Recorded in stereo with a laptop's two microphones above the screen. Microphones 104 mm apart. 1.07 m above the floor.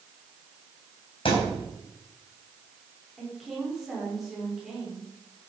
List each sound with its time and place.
1.2 s a thud: 55° left (ahead or behind), 3.5 m
3.2 s a woman speaking: 5° right (ahead or behind), 4 m